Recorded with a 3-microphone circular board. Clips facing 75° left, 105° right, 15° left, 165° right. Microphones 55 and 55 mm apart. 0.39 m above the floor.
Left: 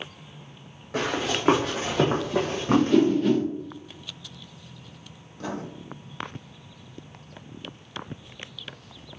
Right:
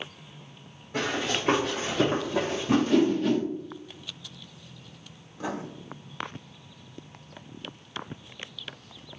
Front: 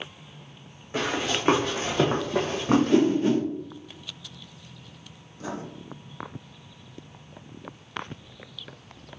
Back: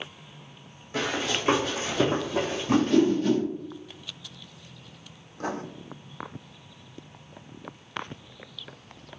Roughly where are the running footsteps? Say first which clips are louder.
Left 2 dB, front 1 dB; left.